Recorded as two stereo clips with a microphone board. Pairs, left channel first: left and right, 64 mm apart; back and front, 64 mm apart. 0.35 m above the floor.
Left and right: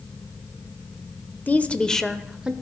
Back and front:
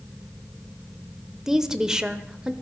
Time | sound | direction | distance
1.5 | a woman speaking | 75° left | 0.9 m